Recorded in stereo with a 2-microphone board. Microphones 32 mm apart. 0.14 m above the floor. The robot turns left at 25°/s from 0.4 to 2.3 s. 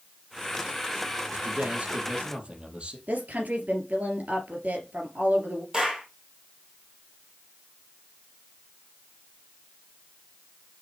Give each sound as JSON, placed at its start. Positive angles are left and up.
{"t": 1.3, "sound": "a man speaking", "side_deg": -55, "distance_m": 3.5}
{"t": 3.1, "sound": "a woman speaking", "side_deg": -55, "distance_m": 3.0}
{"t": 5.7, "sound": "a clap", "side_deg": -25, "distance_m": 3.5}